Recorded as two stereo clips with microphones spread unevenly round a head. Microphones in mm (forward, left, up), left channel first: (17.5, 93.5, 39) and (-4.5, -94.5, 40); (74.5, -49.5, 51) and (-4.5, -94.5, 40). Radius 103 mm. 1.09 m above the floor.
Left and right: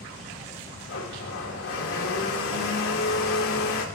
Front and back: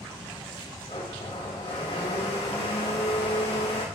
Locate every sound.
0.9 s a blender: 75° left, 3 m